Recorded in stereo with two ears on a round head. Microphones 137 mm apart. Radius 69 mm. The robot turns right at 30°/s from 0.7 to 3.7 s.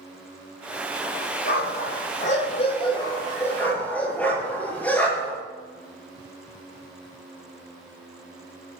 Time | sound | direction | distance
1.4 | a dog barking | 75° left (ahead or behind) | 10 m